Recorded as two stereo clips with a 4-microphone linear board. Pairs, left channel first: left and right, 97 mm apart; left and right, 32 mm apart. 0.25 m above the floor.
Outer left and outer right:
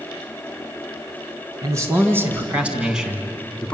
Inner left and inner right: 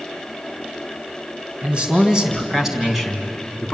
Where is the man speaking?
35° right (ahead or behind), 3 m; by 3.7 s 10° left (ahead or behind), 3 m.